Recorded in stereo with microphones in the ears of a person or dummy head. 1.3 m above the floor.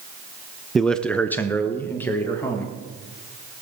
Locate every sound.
0.8 s a man speaking: 5° left (ahead or behind), 0.6 m; by 2.7 s 10° left (ahead or behind), 2.5 m